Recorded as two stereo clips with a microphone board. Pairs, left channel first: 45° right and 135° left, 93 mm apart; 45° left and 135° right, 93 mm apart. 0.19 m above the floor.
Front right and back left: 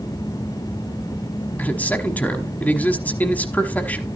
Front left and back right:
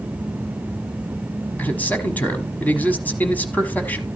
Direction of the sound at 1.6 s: Straight ahead.